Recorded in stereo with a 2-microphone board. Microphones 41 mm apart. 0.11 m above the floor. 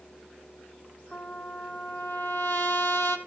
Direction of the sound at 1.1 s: 60° left (ahead or behind).